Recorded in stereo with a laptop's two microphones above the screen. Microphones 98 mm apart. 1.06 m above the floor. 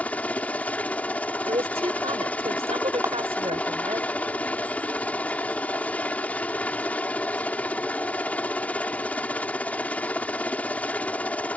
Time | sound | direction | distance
0.0 | a helicopter | 15° left (ahead or behind) | ?
1.5 | a woman speaking | 80° right | ?
3.0 | a clap | 25° right (ahead or behind) | ?